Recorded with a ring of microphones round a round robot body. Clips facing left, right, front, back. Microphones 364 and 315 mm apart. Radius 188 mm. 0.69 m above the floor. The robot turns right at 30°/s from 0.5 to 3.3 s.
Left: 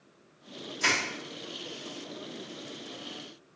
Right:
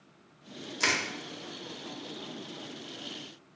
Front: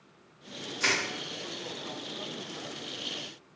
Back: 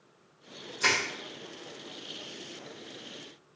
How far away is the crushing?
About 1.1 m.